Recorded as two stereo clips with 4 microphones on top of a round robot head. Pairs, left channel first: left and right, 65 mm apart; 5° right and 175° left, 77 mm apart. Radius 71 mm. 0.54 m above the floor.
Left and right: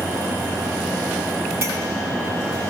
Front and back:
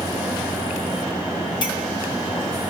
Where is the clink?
35° right, 4.5 m.